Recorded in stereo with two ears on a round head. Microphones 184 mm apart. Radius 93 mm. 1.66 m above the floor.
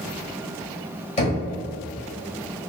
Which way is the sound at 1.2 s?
35° left (ahead or behind).